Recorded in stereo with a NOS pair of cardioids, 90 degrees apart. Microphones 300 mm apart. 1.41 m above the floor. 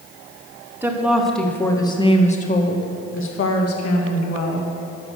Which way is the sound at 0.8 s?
10° right.